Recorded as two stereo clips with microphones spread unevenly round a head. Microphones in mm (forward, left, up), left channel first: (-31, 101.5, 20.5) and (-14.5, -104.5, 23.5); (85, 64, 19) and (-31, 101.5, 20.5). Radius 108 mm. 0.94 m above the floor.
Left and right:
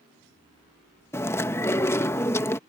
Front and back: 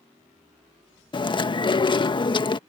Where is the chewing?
20° left.